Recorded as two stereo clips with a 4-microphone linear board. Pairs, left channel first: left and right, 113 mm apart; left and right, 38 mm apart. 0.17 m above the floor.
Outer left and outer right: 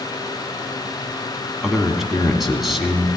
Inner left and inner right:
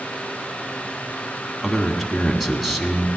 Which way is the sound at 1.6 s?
Centre (ahead or behind).